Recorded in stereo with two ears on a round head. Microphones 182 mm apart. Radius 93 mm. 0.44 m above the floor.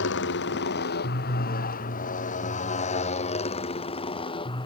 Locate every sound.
0.0 s a motorcycle: 65° left (ahead or behind); by 4.7 s 25° left (ahead or behind)